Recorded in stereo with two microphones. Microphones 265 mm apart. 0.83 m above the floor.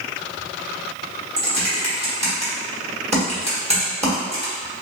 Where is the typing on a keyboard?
25° right (ahead or behind), 1.3 m.